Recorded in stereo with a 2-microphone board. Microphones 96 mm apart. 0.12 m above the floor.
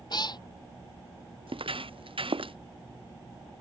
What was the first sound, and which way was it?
A cat meowing, 50° left (ahead or behind).